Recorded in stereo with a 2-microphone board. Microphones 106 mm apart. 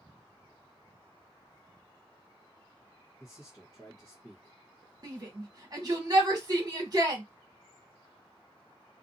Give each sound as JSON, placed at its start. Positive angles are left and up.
{"t": 3.2, "sound": "a man speaking", "side_deg": 35, "distance_m": 1.0}
{"t": 5.0, "sound": "a shout", "side_deg": -40, "distance_m": 1.5}